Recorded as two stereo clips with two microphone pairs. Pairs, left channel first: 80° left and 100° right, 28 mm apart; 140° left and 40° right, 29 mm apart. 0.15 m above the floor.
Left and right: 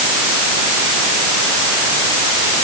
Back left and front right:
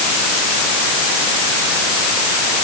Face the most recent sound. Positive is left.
No sound to turn to.